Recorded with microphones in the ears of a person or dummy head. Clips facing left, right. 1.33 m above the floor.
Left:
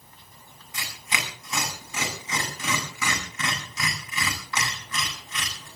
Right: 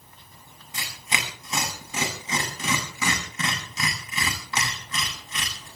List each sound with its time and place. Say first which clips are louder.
0.7 s tearing paper: right 1 dB; 25° right (ahead or behind), 8.5 m